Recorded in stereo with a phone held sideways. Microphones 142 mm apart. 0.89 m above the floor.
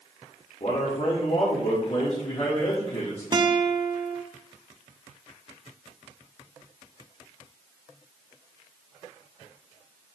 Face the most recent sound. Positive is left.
turn(degrees=-35)  # may be behind; listen again after turning